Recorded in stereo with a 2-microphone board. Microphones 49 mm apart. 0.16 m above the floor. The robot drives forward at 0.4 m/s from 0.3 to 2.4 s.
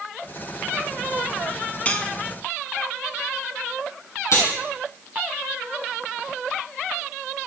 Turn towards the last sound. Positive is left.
turn(degrees=65)  # may be behind; listen again after turning